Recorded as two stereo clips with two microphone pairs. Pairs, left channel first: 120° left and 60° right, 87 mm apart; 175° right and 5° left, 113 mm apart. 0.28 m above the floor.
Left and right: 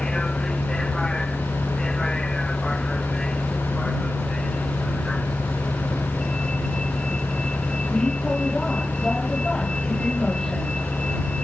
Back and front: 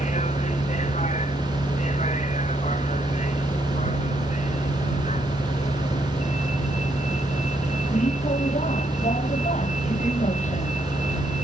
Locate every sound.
0.0 s a vehicle: 155° right